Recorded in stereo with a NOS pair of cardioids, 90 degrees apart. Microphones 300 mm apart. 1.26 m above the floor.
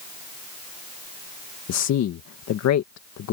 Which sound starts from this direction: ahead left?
A man speaking, at 1.7 s.